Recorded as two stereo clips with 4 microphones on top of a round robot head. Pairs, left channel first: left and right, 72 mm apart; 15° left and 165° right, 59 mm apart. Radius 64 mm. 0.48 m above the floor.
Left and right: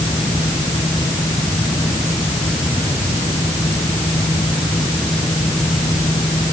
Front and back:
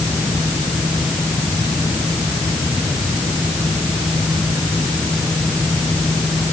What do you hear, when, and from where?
Only background noise.